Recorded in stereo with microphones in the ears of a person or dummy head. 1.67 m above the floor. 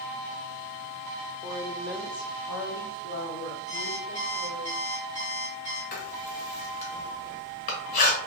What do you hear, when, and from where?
1.4 s a woman speaking: 20° right (ahead or behind), 0.6 m; by 4.7 s 65° left (ahead or behind), 1.9 m
3.7 s an alarm clock: 15° left (ahead or behind), 0.9 m
5.9 s writing: 40° left (ahead or behind), 1.0 m